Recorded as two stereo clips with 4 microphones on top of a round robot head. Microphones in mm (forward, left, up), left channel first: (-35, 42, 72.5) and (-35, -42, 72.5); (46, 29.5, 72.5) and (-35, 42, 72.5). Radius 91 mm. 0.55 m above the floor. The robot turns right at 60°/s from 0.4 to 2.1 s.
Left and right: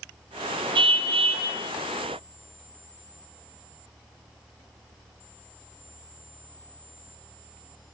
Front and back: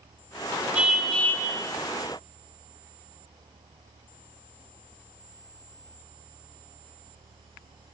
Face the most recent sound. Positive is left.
turn(degrees=-30)